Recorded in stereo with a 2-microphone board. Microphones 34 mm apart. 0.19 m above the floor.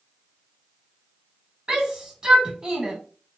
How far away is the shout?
About 1.0 m.